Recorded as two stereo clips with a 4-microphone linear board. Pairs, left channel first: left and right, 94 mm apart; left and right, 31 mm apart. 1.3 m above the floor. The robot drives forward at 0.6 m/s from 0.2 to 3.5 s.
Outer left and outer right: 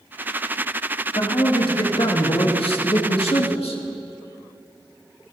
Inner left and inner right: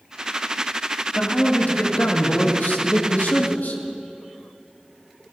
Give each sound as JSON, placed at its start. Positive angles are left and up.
{"t": 1.1, "sound": "a man speaking", "side_deg": 55, "distance_m": 2.5}